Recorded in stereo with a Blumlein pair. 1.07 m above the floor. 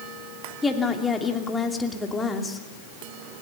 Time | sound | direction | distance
0.6 | a woman speaking | 10° left | 3 m